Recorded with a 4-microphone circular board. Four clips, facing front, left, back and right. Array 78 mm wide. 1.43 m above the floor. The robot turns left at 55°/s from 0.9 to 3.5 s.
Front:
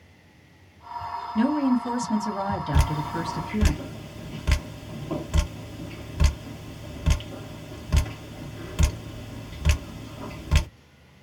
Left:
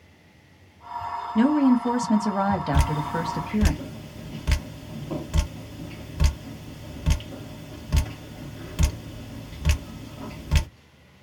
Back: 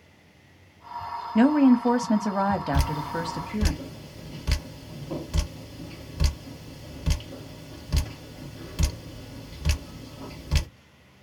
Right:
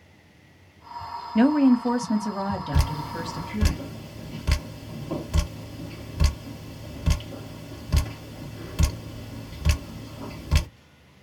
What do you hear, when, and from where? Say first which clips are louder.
1.4 s a woman speaking: right 1 dB, back 5 dB; 145° right, 1.1 m; by 3.7 s 95° left, 1.1 m
2.7 s dripping: left 4 dB, front 1 dB; 55° left, 1.0 m; by 10.7 s 15° left, 1.0 m